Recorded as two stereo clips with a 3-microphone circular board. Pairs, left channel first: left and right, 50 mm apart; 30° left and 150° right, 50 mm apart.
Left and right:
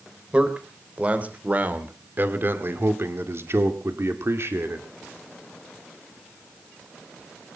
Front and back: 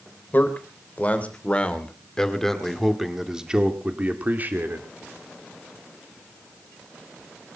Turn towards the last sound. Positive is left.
turn(degrees=-115)